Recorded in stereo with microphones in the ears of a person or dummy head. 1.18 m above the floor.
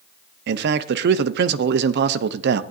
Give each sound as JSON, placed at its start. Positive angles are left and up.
{"t": 0.5, "sound": "a man speaking", "side_deg": -75, "distance_m": 0.8}